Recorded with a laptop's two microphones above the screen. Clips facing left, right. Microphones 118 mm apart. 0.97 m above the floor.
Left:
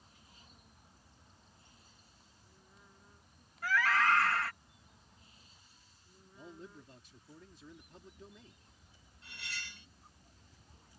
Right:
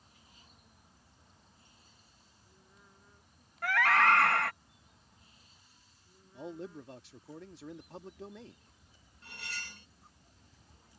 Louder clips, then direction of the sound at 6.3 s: Right 9 dB; 75° right (ahead or behind).